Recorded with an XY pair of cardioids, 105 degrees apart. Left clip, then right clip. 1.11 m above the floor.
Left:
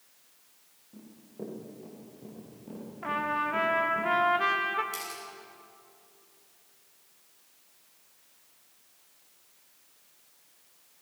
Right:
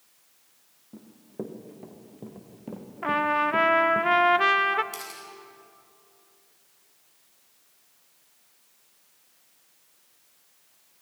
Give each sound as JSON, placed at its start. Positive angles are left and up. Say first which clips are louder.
{"t": 0.9, "sound": "running footsteps", "louder": "right 6 dB", "azimuth_deg": -60, "distance_m": 4.0}
{"t": 3.0, "sound": "a trumpet", "louder": "right 6 dB", "azimuth_deg": -45, "distance_m": 0.9}
{"t": 4.9, "sound": "a camera shutter", "louder": "left 1 dB", "azimuth_deg": -10, "distance_m": 7.5}